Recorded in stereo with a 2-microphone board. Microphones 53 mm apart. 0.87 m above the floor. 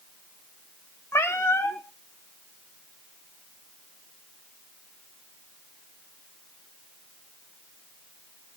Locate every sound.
1.1 s a cat meowing: 55° left (ahead or behind), 1.1 m